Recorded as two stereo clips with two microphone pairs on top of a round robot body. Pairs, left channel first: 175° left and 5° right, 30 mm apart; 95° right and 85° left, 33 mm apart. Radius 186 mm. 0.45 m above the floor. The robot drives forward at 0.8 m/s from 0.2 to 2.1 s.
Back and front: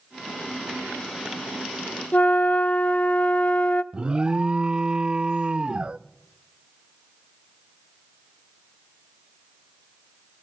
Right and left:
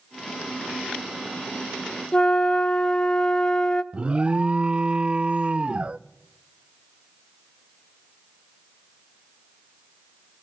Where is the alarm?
55° left, 0.6 m.